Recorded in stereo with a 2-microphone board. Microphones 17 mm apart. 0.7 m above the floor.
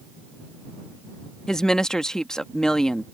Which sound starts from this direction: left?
A woman speaking, at 1.5 s.